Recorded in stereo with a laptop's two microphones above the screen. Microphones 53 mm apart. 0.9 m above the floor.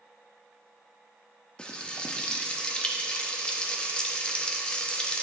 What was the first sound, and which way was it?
Frying, 20° left (ahead or behind).